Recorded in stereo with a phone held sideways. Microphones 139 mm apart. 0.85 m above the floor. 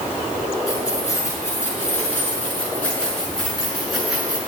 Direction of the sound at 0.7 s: 25° left (ahead or behind).